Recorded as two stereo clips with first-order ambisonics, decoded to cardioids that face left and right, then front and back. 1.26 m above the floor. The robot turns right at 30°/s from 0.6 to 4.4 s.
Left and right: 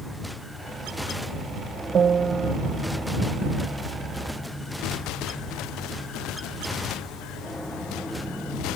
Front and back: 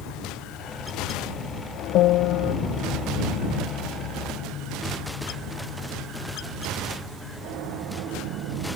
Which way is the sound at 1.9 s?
30° right.